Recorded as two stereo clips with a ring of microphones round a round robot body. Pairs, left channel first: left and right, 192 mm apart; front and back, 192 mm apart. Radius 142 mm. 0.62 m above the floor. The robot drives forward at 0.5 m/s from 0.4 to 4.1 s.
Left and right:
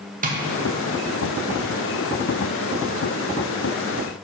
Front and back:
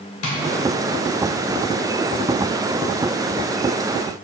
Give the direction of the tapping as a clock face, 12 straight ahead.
1 o'clock.